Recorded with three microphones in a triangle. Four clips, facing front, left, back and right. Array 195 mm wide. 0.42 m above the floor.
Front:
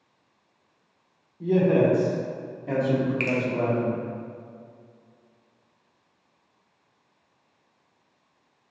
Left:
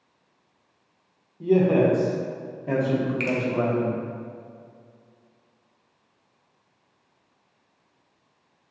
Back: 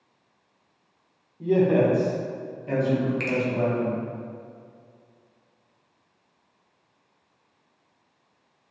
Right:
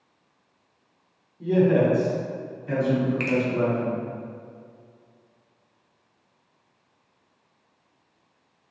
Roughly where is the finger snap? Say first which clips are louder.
Right 2 dB, front 1 dB; right.